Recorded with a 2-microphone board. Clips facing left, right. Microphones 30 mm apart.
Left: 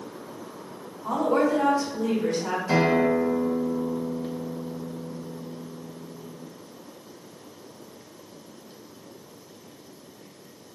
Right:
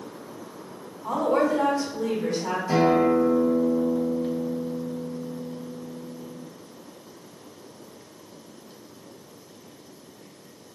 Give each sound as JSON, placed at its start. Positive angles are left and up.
{"t": 1.0, "sound": "a woman speaking", "side_deg": -5, "distance_m": 1.3}
{"t": 2.7, "sound": "a guitar", "side_deg": 45, "distance_m": 1.0}